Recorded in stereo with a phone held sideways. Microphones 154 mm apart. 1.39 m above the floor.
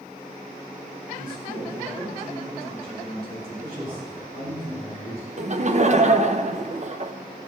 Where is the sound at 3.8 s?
45° right (ahead or behind), 3.5 m.